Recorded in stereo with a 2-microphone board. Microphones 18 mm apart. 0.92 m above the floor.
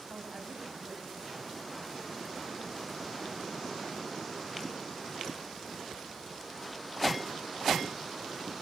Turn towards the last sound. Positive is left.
turn(degrees=-75)  # may be behind; listen again after turning